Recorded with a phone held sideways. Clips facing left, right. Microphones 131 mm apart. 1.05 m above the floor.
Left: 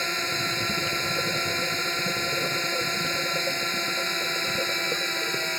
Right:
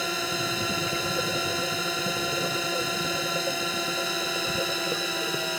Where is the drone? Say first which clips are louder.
Right 1 dB; 10° right (ahead or behind).